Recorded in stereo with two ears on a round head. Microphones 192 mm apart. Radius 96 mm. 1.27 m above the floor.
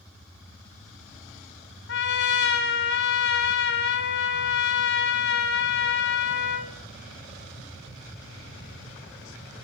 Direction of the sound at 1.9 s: 55° left (ahead or behind).